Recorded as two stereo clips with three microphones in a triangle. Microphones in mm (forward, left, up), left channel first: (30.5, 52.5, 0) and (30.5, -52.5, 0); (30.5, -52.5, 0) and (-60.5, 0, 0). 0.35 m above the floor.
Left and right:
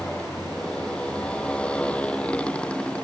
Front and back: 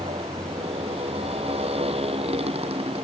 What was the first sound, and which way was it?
A motorcycle, 170° left.